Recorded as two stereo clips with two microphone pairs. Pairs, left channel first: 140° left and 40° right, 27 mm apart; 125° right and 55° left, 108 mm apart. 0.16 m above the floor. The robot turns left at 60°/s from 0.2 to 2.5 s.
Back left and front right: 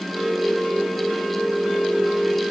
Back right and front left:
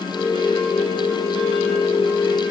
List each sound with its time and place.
Only background noise.